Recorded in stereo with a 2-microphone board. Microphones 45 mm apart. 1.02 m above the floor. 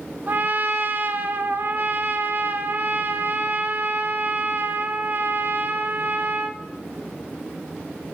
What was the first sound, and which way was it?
A trumpet, 45° right (ahead or behind).